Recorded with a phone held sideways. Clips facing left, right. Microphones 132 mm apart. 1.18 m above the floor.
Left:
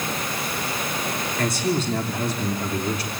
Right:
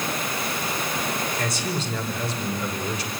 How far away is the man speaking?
About 3 m.